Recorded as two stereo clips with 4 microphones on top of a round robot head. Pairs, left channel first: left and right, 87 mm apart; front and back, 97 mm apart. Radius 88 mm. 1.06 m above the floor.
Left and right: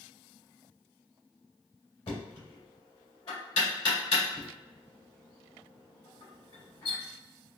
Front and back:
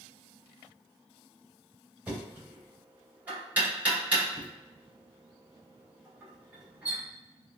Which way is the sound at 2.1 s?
105° left.